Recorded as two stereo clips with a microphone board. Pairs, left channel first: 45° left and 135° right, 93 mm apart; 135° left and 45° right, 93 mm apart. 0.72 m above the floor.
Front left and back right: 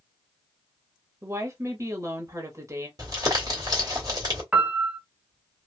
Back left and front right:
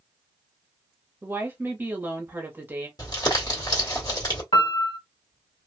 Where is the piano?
150° left, 0.9 m.